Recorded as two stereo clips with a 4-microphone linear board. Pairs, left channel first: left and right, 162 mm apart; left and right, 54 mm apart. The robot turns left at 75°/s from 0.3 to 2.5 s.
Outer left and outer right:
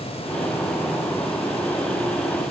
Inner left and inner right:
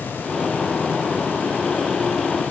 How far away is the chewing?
No chewing in this recording.